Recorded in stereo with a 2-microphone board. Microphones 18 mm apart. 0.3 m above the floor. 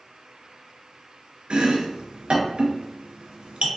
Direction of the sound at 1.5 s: 80° right.